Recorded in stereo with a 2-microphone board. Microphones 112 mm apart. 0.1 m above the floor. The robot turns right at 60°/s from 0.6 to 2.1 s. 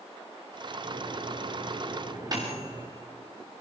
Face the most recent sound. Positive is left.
turn(degrees=-35)  # may be behind; listen again after turning